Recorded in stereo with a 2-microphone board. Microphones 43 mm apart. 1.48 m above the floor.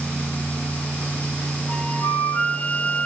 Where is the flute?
50° left (ahead or behind), 5.5 m.